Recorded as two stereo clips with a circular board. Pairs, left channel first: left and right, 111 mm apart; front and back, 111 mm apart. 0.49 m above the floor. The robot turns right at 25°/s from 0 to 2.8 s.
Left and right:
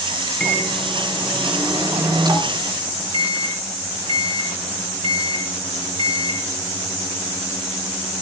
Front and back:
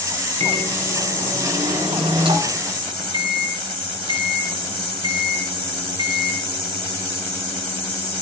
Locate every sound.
0.4 s a microwave: 170° left, 3.5 m; by 6.4 s 130° right, 3.5 m